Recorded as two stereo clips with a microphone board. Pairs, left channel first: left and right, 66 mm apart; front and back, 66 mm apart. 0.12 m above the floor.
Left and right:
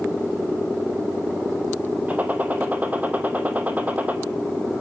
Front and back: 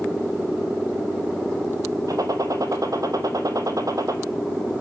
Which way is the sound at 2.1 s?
155° right.